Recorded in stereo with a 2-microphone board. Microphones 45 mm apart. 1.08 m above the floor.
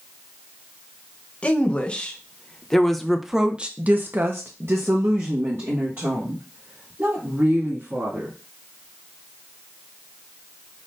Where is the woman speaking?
30° left (ahead or behind), 1.3 m; by 8.3 s 60° right (ahead or behind), 2.5 m.